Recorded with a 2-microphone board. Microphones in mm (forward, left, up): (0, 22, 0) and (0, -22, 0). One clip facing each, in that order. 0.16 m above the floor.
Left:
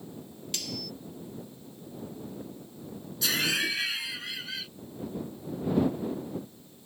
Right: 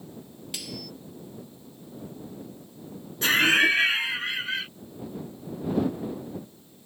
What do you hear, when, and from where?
0.5 s cutlery clinking: 10° right (ahead or behind)
3.2 s laughter: 40° right (ahead or behind)